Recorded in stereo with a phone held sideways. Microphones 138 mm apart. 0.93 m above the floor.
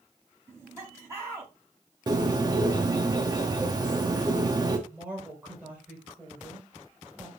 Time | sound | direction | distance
0.5 | laughter | 20° right (ahead or behind) | 6.5 m
2.1 | a bird | 30° right (ahead or behind) | 1.3 m
4.9 | a woman speaking | 10° right (ahead or behind) | 5.5 m